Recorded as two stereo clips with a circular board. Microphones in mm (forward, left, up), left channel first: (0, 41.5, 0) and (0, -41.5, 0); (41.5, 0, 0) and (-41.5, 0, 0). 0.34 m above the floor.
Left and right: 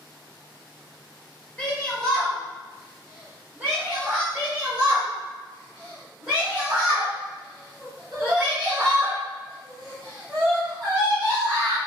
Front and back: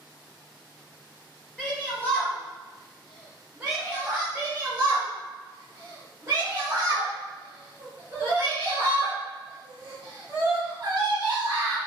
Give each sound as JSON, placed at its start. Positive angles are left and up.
{"t": 1.6, "sound": "a shout", "azimuth_deg": 40, "distance_m": 1.3}
{"t": 4.3, "sound": "a shout", "azimuth_deg": -160, "distance_m": 1.0}